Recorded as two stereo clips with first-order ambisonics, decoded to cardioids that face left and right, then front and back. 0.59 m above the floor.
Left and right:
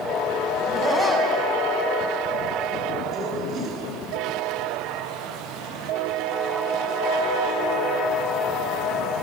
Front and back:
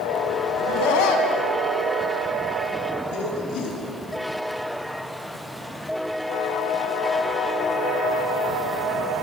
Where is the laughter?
15° left, 5.5 m; by 3.8 s 35° right, 6.5 m.